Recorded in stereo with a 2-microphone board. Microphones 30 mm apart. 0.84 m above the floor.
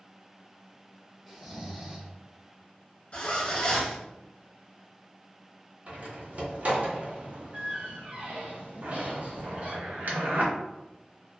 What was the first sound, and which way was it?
Snoring, 15° right (ahead or behind).